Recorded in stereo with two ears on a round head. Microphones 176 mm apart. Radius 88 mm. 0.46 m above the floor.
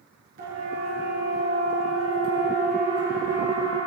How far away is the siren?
About 9 m.